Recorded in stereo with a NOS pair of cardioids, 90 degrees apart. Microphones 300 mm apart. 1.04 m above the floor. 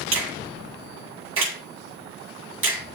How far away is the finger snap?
About 8.5 m.